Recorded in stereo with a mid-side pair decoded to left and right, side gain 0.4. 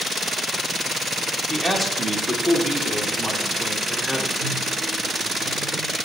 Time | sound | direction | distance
1.5 | a man speaking | 15° right | 2 m
4.4 | a microwave | 35° right | 4.5 m